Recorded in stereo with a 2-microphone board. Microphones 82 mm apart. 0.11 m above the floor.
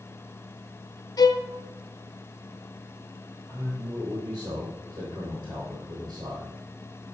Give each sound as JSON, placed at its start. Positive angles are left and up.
{"t": 1.2, "sound": "a violin", "side_deg": 50, "distance_m": 0.6}
{"t": 3.5, "sound": "a man speaking", "side_deg": -40, "distance_m": 4.0}